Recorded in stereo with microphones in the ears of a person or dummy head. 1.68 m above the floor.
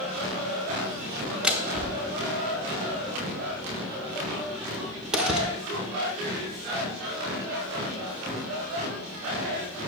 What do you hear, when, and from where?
1.4 s a door slam: 5° right (ahead or behind), 0.8 m